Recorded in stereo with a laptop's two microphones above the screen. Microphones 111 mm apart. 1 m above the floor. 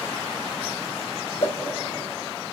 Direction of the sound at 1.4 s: 80° left.